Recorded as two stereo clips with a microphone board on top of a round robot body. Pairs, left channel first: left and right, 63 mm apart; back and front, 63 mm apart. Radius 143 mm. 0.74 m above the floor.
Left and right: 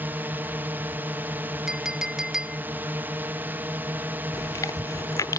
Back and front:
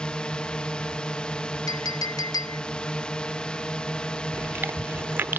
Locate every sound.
0.0 s a drone: 115° right
1.7 s a clink: 170° right
4.3 s chewing: 60° left